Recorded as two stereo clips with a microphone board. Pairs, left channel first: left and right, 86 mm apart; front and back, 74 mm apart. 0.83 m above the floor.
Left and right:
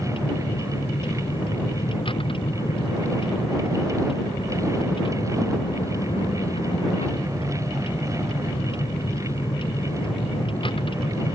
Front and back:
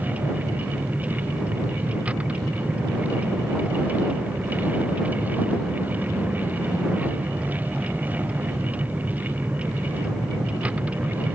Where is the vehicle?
105° left.